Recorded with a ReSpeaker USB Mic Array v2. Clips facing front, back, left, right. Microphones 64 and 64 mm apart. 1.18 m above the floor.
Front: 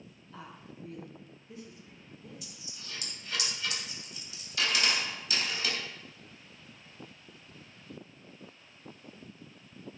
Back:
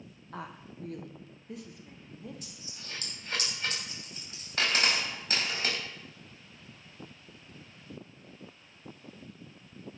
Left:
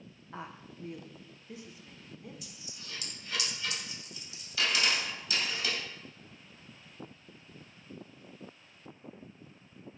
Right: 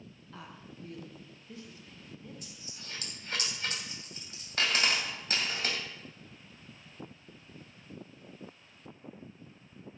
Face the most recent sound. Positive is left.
turn(degrees=-135)